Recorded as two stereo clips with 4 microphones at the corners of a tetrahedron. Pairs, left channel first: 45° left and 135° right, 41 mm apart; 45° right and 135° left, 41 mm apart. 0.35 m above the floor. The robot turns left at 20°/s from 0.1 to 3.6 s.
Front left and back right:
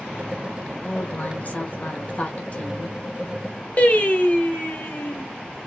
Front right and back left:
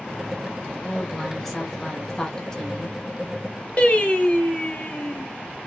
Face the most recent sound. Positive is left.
turn(degrees=5)